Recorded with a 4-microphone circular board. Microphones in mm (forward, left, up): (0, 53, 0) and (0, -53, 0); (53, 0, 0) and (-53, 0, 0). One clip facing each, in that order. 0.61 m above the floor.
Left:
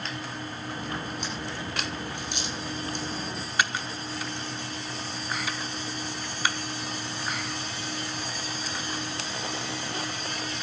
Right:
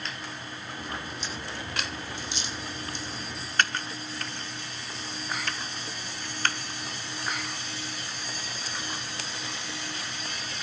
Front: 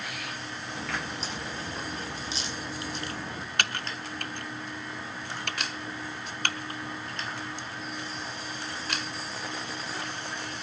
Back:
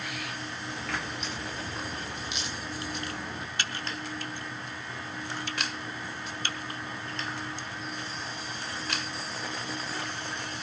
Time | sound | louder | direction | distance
0.8 | a crack | left 2 dB, front 2 dB | 60° left | 7 m
3.6 | typing on a keyboard | even, front 4 dB | 10° left | 0.9 m